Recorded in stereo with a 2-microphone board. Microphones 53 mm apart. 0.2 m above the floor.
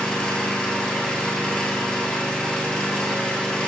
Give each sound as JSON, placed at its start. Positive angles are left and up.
{"t": 0.0, "sound": "an engine running", "side_deg": 15, "distance_m": 1.5}